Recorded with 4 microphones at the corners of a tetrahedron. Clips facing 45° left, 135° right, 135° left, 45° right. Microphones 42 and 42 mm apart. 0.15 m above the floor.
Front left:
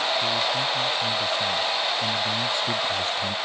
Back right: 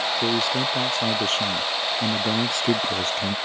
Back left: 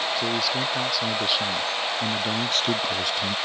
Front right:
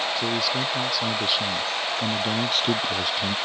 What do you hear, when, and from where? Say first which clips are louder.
0.2 s a man speaking: back right 1 dB, even; 135° right; by 3.4 s 120° right